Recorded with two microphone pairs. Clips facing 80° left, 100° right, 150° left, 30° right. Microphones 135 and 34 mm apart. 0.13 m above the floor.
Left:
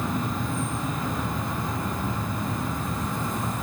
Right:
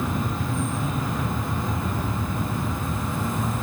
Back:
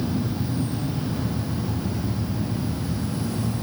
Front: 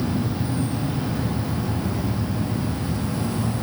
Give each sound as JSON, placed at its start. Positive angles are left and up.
{"t": 0.0, "sound": "an insect", "azimuth_deg": -10, "distance_m": 2.0}